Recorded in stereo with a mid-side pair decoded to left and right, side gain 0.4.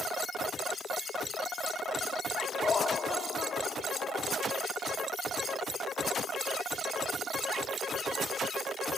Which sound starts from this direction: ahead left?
Laughter, at 2.6 s.